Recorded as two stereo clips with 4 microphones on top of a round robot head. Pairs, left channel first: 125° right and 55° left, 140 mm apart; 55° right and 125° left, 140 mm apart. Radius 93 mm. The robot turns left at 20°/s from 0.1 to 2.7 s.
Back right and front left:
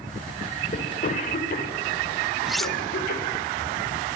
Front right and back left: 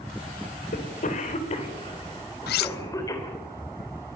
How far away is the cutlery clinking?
About 0.5 m.